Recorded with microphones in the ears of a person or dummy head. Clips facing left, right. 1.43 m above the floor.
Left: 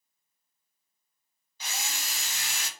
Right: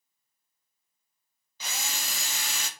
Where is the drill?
70° right (ahead or behind), 0.6 m.